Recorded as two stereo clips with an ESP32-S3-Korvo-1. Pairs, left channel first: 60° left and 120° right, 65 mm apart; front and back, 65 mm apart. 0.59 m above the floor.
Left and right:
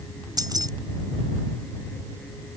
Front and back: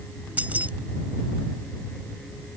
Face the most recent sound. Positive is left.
turn(degrees=-115)